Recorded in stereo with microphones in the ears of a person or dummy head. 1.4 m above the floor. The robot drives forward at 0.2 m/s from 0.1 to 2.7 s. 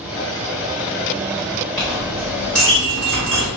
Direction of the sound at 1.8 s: 5° left (ahead or behind).